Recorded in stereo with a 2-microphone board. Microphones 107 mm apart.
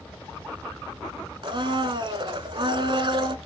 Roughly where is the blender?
Right.